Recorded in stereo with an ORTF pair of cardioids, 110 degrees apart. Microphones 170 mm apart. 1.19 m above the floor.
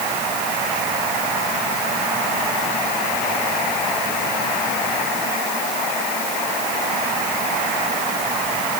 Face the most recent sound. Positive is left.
No sound to turn to.